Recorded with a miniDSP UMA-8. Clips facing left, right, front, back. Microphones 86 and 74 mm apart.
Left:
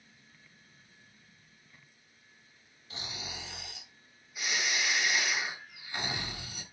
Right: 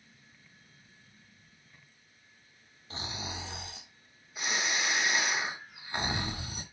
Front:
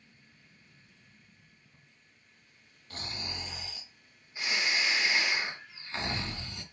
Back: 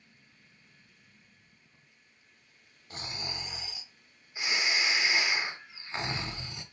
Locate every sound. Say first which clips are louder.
2.9 s snoring: right 4 dB, back 1 dB; 120° right, 0.7 m